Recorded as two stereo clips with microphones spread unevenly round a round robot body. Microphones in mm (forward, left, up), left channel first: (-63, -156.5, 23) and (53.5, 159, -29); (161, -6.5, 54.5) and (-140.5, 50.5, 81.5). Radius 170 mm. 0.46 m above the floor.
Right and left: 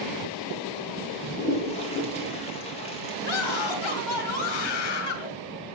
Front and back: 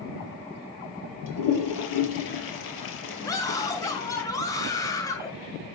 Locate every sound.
1.3 s a toilet flushing: 35° right, 4.5 m
3.2 s a scream: 90° right, 2.5 m